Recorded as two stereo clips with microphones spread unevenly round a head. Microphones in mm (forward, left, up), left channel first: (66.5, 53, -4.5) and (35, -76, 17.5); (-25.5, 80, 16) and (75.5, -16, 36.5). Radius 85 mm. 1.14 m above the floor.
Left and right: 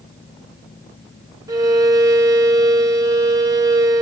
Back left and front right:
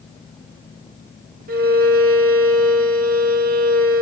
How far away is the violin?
About 1.3 m.